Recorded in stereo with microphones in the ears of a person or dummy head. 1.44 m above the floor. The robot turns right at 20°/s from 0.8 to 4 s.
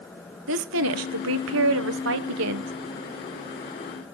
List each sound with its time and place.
0.5 s a woman speaking: 105° right, 1.0 m; by 2.7 s 65° right, 1.0 m